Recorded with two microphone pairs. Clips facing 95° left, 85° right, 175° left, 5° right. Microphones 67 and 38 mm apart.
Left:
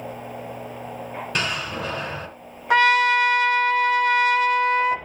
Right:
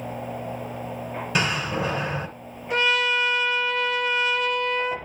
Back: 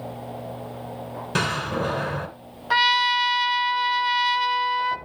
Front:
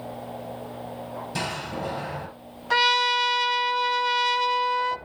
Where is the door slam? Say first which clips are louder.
Right 3 dB, back 7 dB; 170° right, 2.5 m.